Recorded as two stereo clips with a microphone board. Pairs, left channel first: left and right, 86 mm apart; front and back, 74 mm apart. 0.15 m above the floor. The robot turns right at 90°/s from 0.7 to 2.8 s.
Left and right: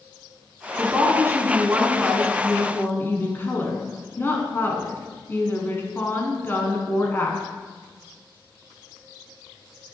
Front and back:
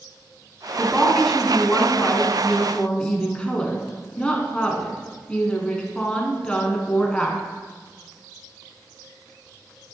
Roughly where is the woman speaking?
Behind right.